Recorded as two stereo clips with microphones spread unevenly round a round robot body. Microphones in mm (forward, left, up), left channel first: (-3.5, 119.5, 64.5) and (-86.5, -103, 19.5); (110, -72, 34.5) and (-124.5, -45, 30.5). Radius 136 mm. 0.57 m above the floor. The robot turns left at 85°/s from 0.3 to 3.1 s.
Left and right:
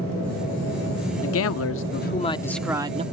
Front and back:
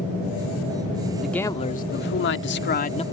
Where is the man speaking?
90° left; by 3.0 s 65° right.